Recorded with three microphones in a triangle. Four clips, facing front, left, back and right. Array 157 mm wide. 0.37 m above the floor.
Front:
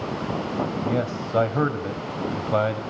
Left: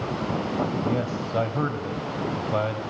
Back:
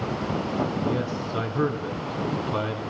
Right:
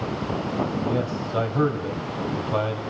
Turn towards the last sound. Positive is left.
turn(degrees=-5)